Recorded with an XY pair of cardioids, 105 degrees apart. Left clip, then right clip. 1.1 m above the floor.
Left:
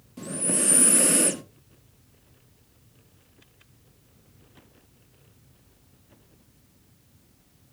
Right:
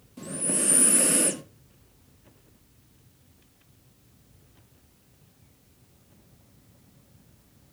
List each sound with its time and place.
0.2 s breathing: 15° left, 1.0 m